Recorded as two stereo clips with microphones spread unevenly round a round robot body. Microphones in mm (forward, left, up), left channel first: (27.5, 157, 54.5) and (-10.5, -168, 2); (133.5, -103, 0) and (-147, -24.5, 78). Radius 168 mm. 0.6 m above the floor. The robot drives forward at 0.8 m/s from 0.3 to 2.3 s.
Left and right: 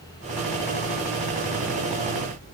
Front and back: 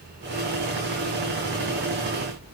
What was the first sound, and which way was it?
Only background noise.